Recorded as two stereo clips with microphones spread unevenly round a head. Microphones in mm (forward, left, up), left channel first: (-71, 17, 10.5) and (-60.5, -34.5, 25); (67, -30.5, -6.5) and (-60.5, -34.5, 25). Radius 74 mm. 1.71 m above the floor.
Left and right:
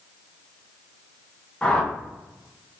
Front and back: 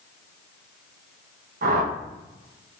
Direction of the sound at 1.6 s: Straight behind.